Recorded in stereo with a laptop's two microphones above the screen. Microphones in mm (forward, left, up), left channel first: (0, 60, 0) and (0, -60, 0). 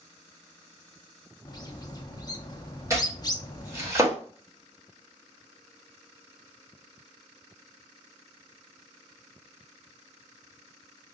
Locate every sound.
1.4 s a bird: 30° left (ahead or behind), 0.6 m
2.9 s chopping: 25° right (ahead or behind), 1.1 m